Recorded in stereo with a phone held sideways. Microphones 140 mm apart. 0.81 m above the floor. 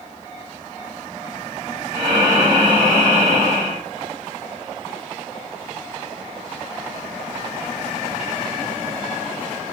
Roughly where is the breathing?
Right.